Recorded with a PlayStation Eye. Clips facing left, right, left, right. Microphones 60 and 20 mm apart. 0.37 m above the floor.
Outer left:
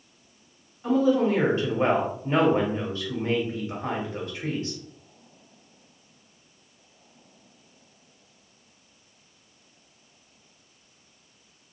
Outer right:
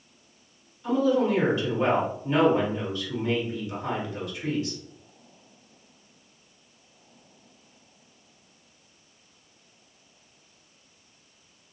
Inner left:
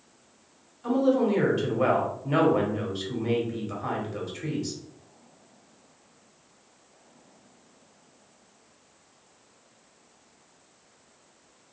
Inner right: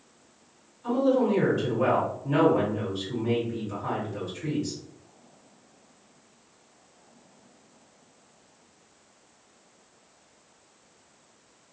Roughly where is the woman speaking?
Left.